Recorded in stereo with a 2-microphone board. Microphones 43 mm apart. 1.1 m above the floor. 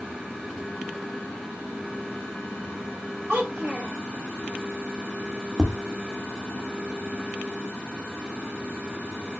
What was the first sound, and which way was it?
A child speaking, 20° right (ahead or behind).